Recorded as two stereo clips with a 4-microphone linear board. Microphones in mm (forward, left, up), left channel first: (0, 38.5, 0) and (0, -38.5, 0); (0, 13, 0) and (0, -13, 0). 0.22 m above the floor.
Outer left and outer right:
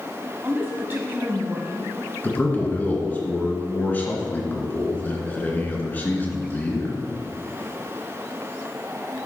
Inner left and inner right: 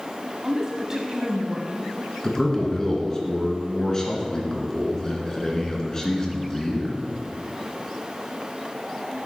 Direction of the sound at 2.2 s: 25° left (ahead or behind).